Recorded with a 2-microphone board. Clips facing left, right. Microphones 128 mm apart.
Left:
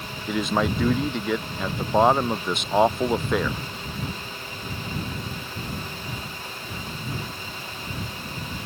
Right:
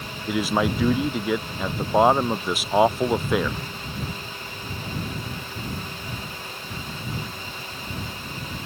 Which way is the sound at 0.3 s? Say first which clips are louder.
Right 1 dB; 5° right (ahead or behind).